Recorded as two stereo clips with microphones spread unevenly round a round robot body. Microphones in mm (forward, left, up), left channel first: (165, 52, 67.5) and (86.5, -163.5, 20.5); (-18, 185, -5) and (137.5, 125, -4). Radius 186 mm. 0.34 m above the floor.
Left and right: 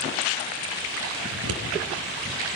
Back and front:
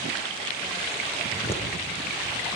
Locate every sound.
1.3 s scissors: 110° right, 5 m